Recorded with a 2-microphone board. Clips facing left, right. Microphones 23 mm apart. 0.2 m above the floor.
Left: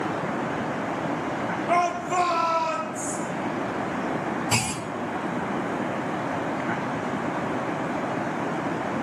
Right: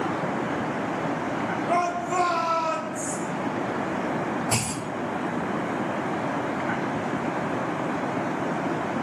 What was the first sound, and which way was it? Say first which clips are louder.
A shout: left 2 dB; 30° left (ahead or behind).